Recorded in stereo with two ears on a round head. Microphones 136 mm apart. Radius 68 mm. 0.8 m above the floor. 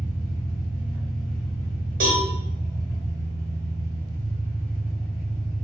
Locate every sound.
0.0 s an engine running: 15° left (ahead or behind), 0.9 m
2.0 s a cowbell: 55° right (ahead or behind), 1.0 m